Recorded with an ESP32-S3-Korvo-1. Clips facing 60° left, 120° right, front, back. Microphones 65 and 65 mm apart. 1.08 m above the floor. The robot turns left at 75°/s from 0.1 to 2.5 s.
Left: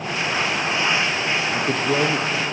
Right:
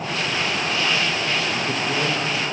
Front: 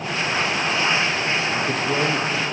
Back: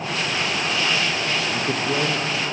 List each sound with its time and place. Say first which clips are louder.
1.5 s a man speaking: left 3 dB, front 1 dB; 120° left, 0.8 m; by 2.4 s 50° left, 0.8 m